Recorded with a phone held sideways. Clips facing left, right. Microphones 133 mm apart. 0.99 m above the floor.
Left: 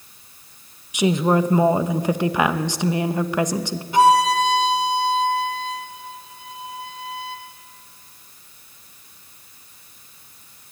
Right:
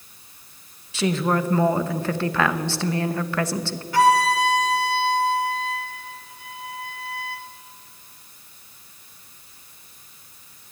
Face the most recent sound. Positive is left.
turn(degrees=20)  # may be behind; listen again after turning